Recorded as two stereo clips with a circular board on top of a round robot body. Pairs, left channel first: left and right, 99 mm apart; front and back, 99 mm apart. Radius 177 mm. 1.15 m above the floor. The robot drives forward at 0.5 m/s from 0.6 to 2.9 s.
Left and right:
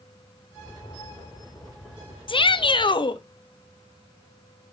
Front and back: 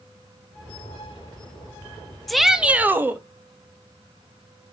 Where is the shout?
90° left, 0.9 m; by 3.2 s 115° left, 0.9 m.